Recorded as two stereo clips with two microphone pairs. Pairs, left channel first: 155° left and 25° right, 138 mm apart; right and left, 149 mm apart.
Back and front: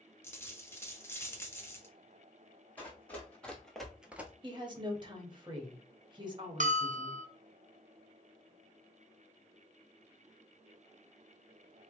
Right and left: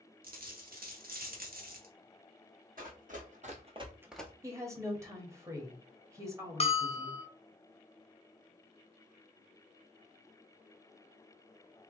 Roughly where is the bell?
Ahead right.